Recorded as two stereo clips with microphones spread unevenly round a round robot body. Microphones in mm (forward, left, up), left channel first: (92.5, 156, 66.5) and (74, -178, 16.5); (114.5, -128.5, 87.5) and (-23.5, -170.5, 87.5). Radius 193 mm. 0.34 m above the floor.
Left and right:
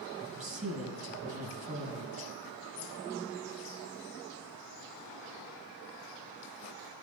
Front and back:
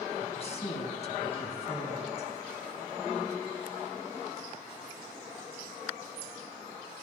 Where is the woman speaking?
25° right, 4.5 m.